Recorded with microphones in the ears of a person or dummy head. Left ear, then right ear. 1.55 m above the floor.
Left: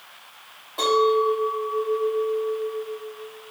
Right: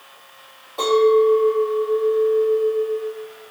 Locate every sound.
0.8 s a clink: 20° left (ahead or behind), 1.9 m